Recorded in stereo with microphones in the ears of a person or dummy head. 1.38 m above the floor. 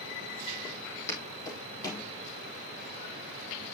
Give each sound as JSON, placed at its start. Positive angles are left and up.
{"t": 0.6, "sound": "footsteps", "side_deg": 10, "distance_m": 4.0}